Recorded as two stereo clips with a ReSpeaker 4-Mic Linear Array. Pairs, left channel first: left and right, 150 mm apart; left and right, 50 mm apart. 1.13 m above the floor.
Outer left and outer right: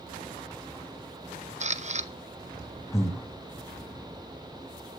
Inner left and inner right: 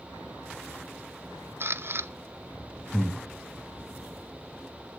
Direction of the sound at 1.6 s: 50° right (ahead or behind).